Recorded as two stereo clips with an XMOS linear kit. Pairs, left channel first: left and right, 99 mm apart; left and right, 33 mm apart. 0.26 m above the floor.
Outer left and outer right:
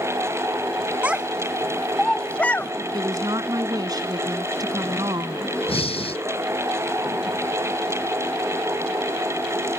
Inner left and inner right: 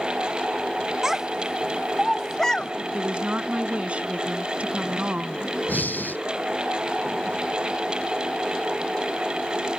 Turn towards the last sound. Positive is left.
turn(degrees=75)  # may be behind; listen again after turning